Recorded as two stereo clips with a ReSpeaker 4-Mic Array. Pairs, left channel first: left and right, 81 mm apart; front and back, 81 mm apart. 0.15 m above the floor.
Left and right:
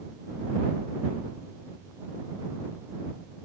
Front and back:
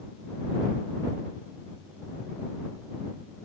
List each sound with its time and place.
Only background noise.